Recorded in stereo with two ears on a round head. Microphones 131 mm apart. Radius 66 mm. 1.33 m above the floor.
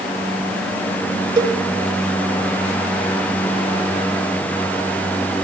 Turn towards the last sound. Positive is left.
turn(degrees=-25)  # may be behind; listen again after turning